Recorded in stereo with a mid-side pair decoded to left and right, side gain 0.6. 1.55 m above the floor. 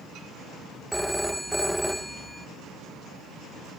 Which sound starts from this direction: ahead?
A phone ringing, at 0.9 s.